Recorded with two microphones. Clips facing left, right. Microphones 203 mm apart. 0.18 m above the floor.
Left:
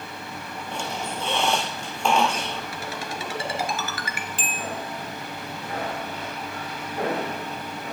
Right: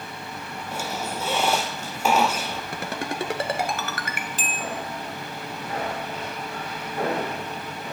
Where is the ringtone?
60° right (ahead or behind), 1.7 m.